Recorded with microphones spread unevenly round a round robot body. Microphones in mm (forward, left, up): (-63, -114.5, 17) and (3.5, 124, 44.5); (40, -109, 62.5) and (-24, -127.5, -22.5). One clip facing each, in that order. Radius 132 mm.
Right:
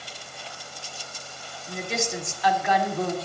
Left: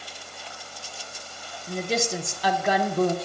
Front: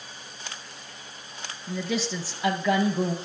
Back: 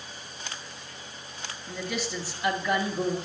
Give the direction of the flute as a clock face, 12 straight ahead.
No flute in this recording.